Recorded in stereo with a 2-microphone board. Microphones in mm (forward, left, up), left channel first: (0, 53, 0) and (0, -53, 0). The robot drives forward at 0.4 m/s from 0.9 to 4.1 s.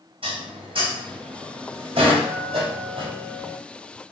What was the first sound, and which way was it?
Dishes clattering, 70° right (ahead or behind).